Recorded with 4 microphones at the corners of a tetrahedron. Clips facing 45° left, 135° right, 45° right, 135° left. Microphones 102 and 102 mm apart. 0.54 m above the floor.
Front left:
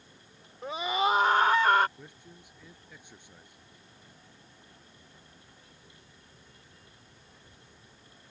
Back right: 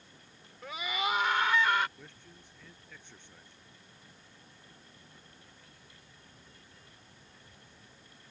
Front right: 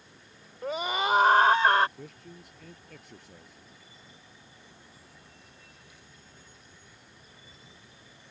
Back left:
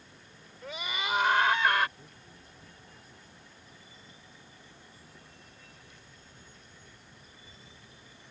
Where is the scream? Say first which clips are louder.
Front left 7 dB, front right 8 dB; 10° right; by 1.9 s 5° left.